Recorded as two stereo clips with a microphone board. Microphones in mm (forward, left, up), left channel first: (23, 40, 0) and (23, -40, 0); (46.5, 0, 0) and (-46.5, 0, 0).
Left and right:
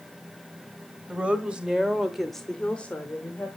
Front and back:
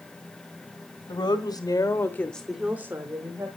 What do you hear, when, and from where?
1.1 s a woman speaking: 15° right, 1.6 m; by 3.5 s 155° left, 1.4 m